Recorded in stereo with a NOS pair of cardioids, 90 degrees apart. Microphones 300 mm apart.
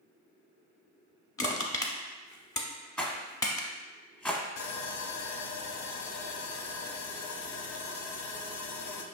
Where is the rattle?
5° left, 0.9 m.